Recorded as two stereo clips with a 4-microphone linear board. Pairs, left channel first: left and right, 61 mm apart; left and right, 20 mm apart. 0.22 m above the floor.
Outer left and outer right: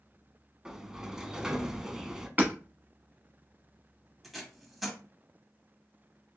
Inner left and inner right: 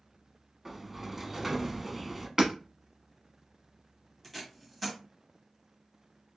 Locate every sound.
0.7 s a sliding door: 10° right (ahead or behind), 0.6 m
2.4 s hammering: 30° right (ahead or behind), 1.1 m
4.2 s tape being pulled: 5° right (ahead or behind), 1.4 m